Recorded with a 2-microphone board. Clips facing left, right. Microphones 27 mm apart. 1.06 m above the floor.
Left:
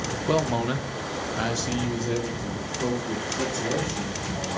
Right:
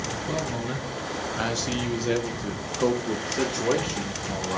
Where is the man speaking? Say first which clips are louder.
Left 8 dB; 45° left (ahead or behind), 1.2 m; by 4.6 s 70° right (ahead or behind), 2.5 m.